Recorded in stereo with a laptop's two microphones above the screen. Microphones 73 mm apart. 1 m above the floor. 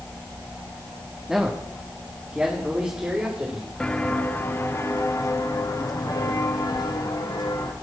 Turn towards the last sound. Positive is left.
turn(degrees=70)  # may be behind; listen again after turning